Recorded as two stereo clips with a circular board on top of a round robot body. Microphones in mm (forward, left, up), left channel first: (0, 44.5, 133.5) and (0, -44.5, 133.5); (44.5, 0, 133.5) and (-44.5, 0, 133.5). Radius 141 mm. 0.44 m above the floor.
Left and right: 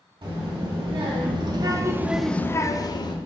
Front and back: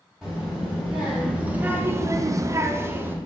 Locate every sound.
0.2 s a child speaking: 95° right, 1.5 m; by 3.2 s 115° left, 0.9 m